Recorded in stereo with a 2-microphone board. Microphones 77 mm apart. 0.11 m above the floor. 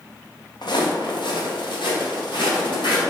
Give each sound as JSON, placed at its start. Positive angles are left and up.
{"t": 0.6, "sound": "footsteps", "side_deg": 65, "distance_m": 1.4}